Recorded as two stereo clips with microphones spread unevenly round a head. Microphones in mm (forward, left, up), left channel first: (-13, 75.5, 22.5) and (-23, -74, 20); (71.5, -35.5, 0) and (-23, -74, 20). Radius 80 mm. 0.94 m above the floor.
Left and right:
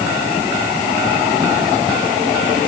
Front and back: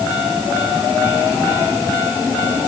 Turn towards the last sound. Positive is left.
No sound to turn to.